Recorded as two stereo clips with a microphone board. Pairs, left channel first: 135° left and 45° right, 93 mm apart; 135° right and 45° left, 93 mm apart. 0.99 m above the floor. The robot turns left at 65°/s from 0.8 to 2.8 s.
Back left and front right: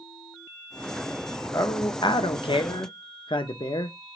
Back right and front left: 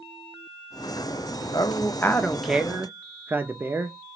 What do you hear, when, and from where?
1.5 s a man speaking: 170° right, 0.7 m; by 4.0 s 110° left, 0.7 m